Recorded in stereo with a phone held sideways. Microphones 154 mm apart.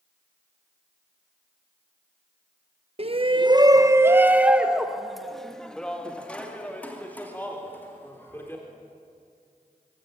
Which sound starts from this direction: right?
A shout, at 3.0 s.